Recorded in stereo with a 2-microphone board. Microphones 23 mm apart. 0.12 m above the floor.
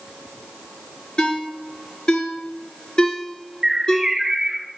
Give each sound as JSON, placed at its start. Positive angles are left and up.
{"t": 1.2, "sound": "a ringtone", "side_deg": 40, "distance_m": 1.3}
{"t": 3.6, "sound": "a bird", "side_deg": -25, "distance_m": 2.5}